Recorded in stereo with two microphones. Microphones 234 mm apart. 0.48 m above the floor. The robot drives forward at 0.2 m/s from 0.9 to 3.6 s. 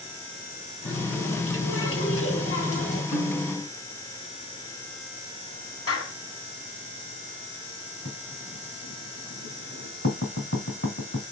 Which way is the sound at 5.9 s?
75° left (ahead or behind).